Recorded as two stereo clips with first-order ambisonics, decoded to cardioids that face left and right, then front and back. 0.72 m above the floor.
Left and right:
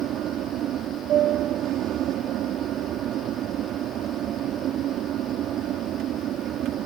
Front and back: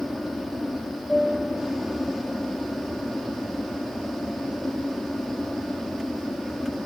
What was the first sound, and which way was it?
An aircraft, 80° right.